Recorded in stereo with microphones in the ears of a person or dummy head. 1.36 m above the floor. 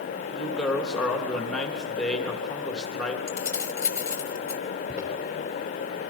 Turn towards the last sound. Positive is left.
turn(degrees=-15)  # may be behind; listen again after turning